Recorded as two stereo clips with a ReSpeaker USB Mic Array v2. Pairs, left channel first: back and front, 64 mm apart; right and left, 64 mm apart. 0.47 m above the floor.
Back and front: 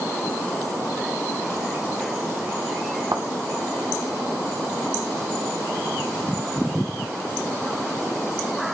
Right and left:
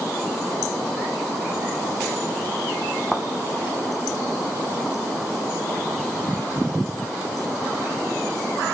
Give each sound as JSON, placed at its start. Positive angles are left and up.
{"t": 3.1, "sound": "a thud", "azimuth_deg": -10, "distance_m": 2.0}